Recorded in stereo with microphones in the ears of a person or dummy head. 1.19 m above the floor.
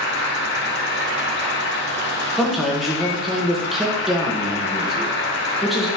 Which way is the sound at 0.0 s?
65° left (ahead or behind).